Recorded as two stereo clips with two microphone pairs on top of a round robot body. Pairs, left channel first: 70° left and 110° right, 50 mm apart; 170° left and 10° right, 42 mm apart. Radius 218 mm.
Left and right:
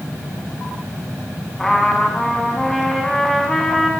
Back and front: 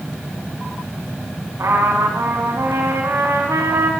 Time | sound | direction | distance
1.6 | a trumpet | 10° right | 4.5 m